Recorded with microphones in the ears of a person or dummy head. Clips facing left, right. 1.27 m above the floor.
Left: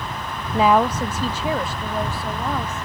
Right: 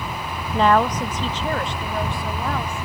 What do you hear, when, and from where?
0.5 s a woman speaking: 5° left (ahead or behind); by 2.8 s 10° left (ahead or behind)